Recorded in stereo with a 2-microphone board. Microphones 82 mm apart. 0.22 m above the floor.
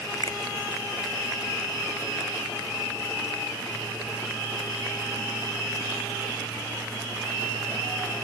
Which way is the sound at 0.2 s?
45° left (ahead or behind).